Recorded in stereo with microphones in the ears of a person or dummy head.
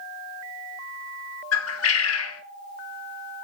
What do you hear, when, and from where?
1.5 s a bird: 80° left, 0.7 m